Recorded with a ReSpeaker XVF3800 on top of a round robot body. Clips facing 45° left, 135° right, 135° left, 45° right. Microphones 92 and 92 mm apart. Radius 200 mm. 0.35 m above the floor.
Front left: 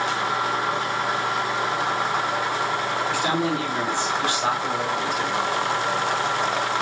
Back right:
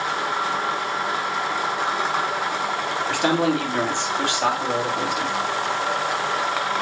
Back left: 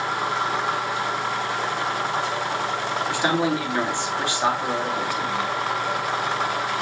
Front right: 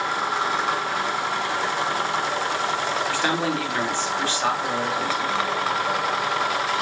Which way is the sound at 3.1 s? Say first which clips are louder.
Back right 6 dB, back left 5 dB; 150° right.